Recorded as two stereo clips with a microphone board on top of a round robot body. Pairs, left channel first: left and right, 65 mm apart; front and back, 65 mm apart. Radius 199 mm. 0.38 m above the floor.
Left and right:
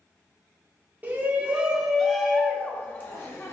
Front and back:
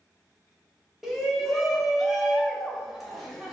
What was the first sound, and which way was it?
A shout, 95° right.